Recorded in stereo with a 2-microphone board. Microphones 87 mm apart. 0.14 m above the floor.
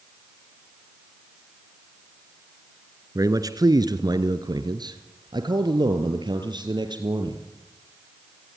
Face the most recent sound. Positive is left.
turn(degrees=-60)  # may be behind; listen again after turning